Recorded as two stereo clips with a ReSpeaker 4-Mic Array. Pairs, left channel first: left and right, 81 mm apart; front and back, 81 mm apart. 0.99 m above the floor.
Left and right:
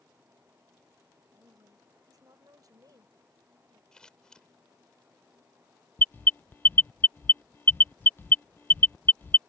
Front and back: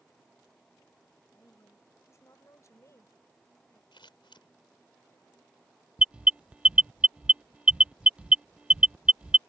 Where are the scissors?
10° left.